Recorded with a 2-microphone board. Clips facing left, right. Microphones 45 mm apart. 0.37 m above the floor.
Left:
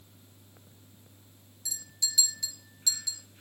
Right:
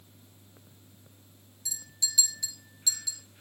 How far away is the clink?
About 4 m.